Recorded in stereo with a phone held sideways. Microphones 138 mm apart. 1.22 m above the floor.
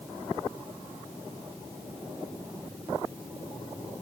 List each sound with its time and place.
Only background noise.